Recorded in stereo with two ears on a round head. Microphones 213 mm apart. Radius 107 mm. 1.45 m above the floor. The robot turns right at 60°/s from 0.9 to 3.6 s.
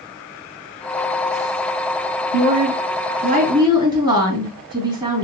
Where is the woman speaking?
100° right, 3.5 m; by 5.2 s 25° right, 3.5 m.